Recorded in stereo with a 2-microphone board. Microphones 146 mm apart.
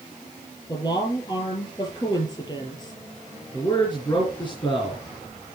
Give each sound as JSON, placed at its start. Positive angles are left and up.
{"t": 0.7, "sound": "a woman speaking", "side_deg": 35, "distance_m": 5.0}
{"t": 3.5, "sound": "a man speaking", "side_deg": 35, "distance_m": 3.5}